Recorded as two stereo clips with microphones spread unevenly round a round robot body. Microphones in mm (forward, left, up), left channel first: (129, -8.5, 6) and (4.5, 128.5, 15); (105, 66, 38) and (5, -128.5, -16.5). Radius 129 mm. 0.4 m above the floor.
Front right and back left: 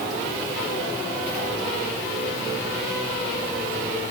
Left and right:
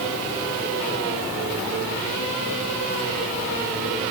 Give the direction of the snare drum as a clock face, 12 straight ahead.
No snare drum in this recording.